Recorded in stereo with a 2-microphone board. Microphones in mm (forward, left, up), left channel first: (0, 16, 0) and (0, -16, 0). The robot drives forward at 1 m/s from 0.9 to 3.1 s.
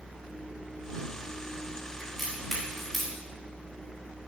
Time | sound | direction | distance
2.0 | a crack | 5° left (ahead or behind) | 4 m